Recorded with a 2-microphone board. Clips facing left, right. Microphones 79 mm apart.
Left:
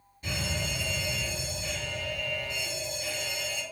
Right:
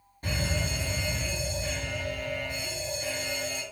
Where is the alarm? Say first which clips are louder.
Right 2 dB; 40° right (ahead or behind), 4 m.